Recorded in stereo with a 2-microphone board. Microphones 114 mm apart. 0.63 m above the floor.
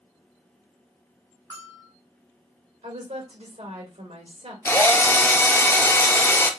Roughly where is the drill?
Left.